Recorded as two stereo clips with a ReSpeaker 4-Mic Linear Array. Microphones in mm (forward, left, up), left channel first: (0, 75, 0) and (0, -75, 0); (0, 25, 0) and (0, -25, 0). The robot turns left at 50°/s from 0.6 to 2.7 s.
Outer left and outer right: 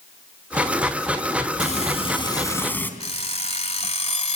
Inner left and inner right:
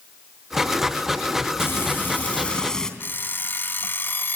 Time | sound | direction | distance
1.6 | frying | 70° left | 2.5 m
3.0 | an alarm clock | 50° left (ahead or behind) | 1.4 m